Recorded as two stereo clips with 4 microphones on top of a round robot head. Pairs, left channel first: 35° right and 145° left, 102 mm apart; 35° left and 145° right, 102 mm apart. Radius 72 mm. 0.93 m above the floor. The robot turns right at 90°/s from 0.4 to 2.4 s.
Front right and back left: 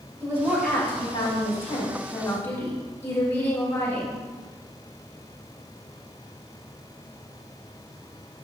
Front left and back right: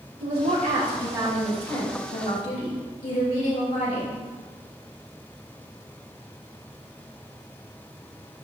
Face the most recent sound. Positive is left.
turn(degrees=35)